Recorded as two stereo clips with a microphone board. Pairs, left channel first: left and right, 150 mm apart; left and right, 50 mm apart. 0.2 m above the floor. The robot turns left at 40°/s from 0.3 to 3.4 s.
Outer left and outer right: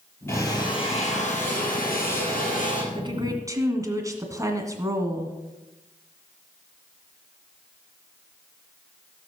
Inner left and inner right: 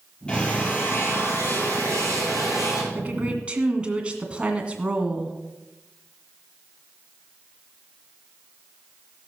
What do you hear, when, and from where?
0.3 s a drill: 165° left, 4.5 m; by 2.8 s 60° left, 4.5 m
2.9 s a woman speaking: 35° right (ahead or behind), 2.0 m; by 5.4 s 20° right (ahead or behind), 2.0 m